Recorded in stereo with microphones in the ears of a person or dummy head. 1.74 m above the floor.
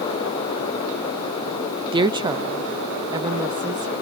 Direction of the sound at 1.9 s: 20° right (ahead or behind).